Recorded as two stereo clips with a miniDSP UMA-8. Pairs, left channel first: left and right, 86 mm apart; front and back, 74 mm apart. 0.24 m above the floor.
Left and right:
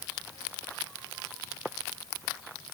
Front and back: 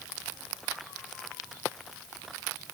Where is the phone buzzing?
No phone buzzing in this recording.